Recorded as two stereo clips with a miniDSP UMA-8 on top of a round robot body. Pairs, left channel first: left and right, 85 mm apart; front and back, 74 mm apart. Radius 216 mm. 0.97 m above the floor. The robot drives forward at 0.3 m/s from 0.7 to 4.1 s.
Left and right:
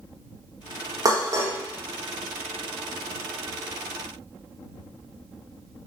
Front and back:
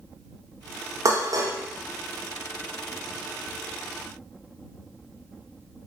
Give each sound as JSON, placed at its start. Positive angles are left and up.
{"t": 1.1, "sound": "dishes clattering", "azimuth_deg": -135, "distance_m": 0.6}